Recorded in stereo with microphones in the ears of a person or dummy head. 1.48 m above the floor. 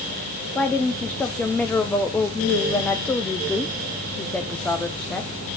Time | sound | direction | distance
0.6 | a woman speaking | 10° left (ahead or behind) | 1.1 m